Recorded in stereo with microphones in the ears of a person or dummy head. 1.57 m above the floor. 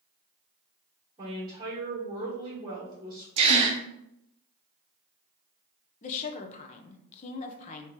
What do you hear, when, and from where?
1.2 s a woman speaking: 30° right (ahead or behind), 1.8 m
3.4 s a gasp: 35° right (ahead or behind), 0.7 m
6.0 s a woman speaking: 35° left (ahead or behind), 0.6 m